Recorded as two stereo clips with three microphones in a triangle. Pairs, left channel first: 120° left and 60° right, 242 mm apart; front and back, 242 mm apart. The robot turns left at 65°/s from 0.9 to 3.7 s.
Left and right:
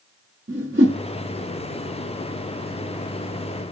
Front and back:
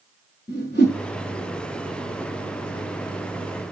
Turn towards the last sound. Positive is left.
turn(degrees=140)